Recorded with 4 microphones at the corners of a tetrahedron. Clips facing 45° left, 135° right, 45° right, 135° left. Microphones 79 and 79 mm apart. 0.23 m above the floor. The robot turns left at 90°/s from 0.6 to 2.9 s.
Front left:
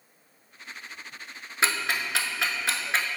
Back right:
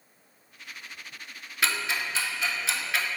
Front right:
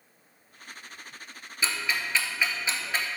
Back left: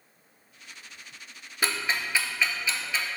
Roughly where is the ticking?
Left.